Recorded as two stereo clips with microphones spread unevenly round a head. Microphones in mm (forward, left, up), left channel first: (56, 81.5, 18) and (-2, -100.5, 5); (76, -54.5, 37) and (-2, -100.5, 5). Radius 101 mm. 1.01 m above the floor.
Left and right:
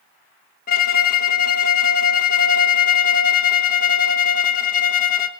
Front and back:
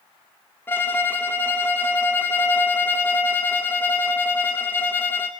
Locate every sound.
0.7 s a violin: 115° left, 1.1 m